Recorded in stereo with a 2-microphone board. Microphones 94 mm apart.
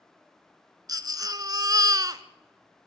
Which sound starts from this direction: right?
A baby crying, at 0.9 s.